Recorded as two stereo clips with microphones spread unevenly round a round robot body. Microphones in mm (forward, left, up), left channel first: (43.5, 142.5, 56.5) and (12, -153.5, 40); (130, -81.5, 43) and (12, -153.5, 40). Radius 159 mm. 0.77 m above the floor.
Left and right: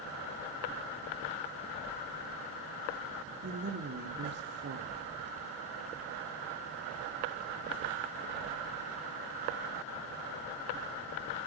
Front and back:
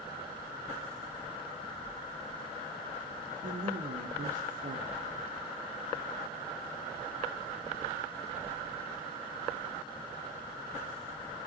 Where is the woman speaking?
150° right, 2.0 m.